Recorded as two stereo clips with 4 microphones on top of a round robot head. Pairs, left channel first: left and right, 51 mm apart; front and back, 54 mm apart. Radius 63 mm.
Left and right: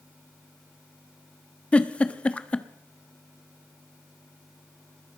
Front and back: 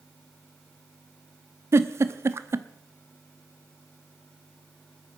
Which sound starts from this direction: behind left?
A giggle, at 1.7 s.